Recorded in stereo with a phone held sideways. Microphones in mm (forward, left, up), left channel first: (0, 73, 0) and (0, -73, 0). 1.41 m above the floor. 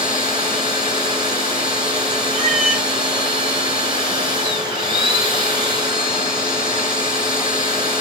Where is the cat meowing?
55° right (ahead or behind), 2.5 m.